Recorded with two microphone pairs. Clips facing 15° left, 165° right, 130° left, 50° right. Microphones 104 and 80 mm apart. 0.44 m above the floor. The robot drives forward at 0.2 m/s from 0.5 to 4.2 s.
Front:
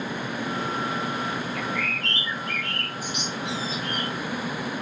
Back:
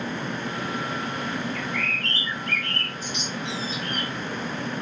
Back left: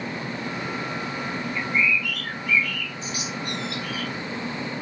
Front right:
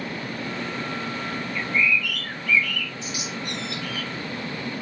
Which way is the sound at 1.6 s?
70° left.